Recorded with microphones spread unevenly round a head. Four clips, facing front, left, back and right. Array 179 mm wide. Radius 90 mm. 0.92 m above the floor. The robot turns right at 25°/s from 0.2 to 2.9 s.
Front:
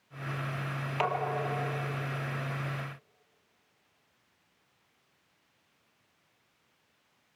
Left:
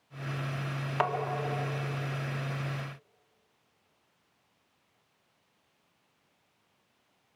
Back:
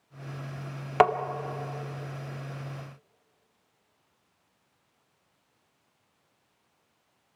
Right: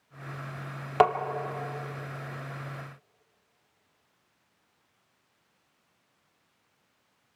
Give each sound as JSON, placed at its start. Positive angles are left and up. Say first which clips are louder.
{"t": 1.0, "sound": "tapping", "louder": "right 9 dB, back 10 dB", "azimuth_deg": -135, "distance_m": 1.6}